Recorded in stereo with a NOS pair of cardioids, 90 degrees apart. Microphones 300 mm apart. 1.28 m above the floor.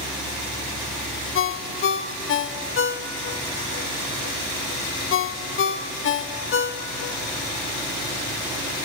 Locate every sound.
0.0 s a fan: 70° left, 9.5 m
1.4 s a ringtone: 45° left, 1.2 m